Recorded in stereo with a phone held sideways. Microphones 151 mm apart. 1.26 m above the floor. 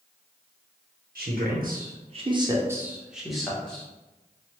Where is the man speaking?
85° right, 0.6 m; by 3.9 s 5° left (ahead or behind), 1.1 m.